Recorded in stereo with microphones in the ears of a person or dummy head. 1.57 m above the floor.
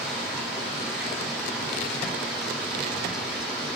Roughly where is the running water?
Centre.